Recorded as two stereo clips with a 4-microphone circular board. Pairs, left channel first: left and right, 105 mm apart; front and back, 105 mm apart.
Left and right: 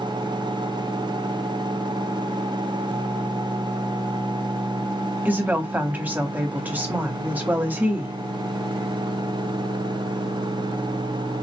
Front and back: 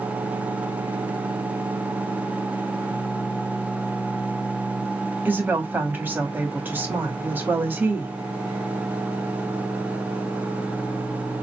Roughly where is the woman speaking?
Behind right.